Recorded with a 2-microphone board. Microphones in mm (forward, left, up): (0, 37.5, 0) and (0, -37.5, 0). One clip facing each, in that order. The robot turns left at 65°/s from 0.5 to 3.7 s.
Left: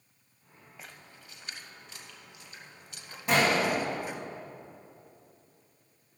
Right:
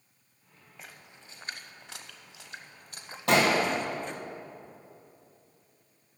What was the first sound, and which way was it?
A splash, centre (ahead or behind).